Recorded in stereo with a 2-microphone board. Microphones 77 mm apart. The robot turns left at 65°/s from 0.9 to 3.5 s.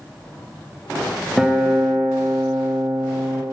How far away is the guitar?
About 0.6 m.